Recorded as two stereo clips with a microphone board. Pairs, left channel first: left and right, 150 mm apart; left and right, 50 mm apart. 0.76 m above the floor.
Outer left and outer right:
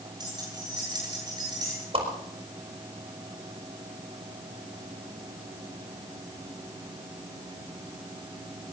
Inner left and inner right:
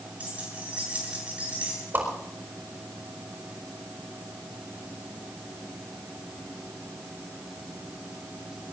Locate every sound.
0.2 s keys jangling: 30° right (ahead or behind), 8.5 m
1.9 s a whoosh: 40° right (ahead or behind), 4.5 m